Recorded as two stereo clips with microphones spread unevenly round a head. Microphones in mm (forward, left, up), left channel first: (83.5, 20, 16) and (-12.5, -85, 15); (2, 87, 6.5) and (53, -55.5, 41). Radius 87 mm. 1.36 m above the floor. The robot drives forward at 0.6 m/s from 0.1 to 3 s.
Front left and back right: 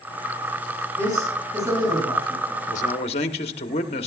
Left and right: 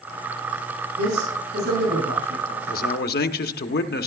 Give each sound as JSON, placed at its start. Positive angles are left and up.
{"t": 1.0, "sound": "a man speaking", "azimuth_deg": -65, "distance_m": 7.5}
{"t": 2.7, "sound": "a man speaking", "azimuth_deg": 90, "distance_m": 0.9}